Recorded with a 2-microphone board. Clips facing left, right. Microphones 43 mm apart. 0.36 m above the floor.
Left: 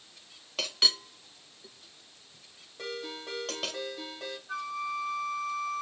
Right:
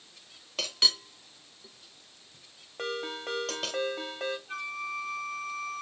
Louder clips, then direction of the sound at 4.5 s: Left 1 dB; 80° right.